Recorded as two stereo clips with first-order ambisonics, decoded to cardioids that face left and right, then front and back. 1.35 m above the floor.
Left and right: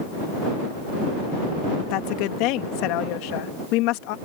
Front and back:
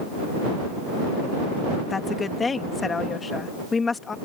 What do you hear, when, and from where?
1.9 s a woman speaking: 75° left